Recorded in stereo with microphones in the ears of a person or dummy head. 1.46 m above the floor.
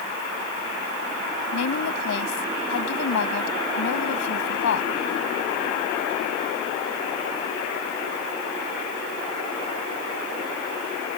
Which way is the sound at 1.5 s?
75° left (ahead or behind).